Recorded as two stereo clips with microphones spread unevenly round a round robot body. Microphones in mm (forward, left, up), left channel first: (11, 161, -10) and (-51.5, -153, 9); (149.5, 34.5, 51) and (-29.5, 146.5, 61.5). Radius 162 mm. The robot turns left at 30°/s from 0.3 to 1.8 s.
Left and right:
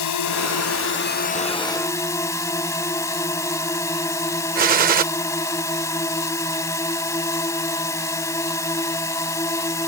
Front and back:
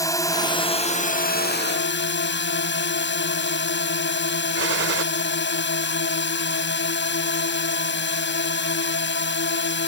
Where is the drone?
40° left; by 9.9 s 5° right.